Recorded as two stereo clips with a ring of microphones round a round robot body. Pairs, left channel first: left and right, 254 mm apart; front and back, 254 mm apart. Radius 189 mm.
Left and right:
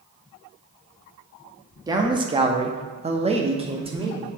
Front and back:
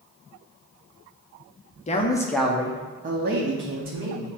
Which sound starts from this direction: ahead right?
A man speaking, at 1.9 s.